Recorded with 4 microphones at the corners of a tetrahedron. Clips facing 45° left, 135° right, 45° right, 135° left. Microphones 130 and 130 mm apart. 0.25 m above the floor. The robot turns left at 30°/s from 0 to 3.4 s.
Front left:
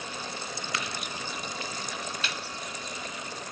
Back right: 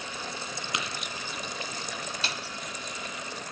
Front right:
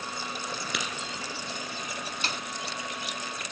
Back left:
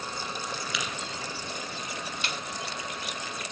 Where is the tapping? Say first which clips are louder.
Back right 1 dB, front right 1 dB; 65° right, 1.6 m; by 0.8 s 70° right, 1.6 m.